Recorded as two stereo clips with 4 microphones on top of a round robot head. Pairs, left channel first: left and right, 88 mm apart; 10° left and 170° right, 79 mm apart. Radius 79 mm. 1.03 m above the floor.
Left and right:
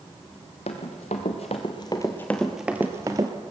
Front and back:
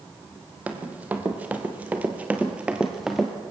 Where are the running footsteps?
120° left, 1.8 m; by 3.3 s 80° right, 1.1 m.